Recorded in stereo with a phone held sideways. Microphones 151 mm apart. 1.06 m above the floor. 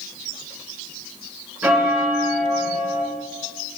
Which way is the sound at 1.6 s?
10° right (ahead or behind).